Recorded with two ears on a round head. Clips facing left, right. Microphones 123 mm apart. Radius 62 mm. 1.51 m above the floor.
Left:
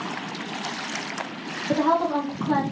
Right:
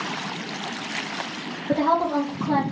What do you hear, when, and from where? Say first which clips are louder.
1.7 s a woman speaking: even; 15° right (ahead or behind), 0.9 m